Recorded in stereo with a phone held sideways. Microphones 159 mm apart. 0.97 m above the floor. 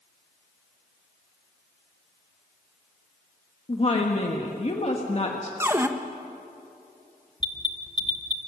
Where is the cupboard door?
15° right (ahead or behind), 1.1 m.